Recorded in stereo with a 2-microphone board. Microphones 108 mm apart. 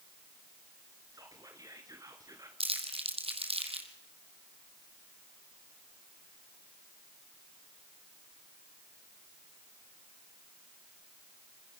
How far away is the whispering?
About 1.5 m.